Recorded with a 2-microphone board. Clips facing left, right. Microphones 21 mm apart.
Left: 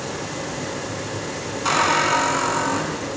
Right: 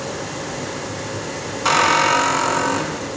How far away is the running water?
About 1.5 m.